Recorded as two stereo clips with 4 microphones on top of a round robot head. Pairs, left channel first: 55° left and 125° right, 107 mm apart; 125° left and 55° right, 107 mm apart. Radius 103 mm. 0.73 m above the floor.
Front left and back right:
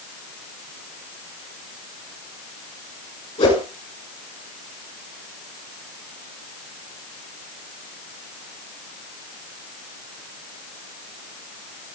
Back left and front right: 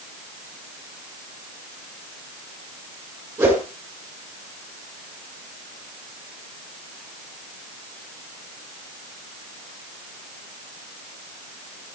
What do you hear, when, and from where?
3.4 s a whoosh: 20° left, 5.5 m